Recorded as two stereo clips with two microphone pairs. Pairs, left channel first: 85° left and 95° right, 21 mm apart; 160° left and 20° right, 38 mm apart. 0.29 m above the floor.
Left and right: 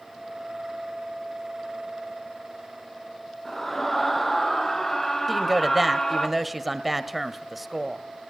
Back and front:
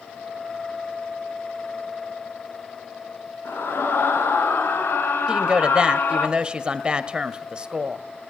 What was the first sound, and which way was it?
A scream, 160° left.